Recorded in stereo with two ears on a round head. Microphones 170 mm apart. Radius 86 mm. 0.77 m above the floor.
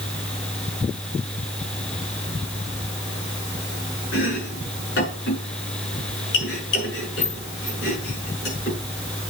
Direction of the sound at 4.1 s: 60° left (ahead or behind).